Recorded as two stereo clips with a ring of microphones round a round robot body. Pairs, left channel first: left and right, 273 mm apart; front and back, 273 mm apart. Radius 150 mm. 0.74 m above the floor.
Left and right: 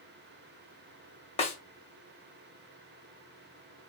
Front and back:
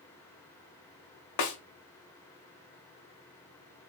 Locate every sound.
1.4 s a snare drum: 20° left, 0.7 m